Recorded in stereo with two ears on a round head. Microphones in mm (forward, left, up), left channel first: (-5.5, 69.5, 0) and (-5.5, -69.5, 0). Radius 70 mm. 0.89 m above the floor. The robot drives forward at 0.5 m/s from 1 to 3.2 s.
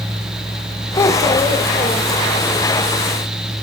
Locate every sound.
1.0 s a child speaking: 20° left (ahead or behind), 1.4 m; by 2.6 s 10° left (ahead or behind), 2 m